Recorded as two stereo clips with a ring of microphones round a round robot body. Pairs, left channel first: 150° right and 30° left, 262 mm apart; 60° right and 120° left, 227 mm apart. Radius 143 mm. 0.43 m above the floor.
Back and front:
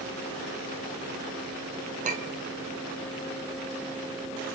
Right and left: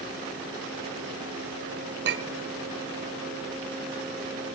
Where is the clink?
90° left, 1.4 m.